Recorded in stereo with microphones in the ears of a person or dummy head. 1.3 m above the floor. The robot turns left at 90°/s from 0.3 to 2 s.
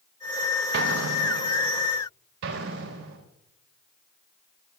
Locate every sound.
0.7 s an explosion: 60° right (ahead or behind), 0.7 m; by 1.9 s 10° right (ahead or behind), 0.7 m
2.4 s an explosion: 85° right, 4 m